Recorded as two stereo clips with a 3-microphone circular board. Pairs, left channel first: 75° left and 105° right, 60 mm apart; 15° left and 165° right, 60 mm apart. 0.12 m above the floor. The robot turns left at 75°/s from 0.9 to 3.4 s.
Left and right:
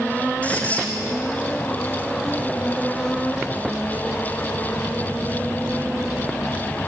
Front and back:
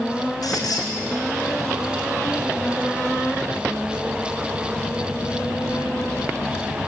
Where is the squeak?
5° left, 3.5 m.